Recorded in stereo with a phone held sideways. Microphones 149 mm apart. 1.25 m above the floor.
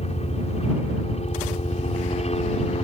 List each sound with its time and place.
0.0 s a helicopter: 50° left (ahead or behind)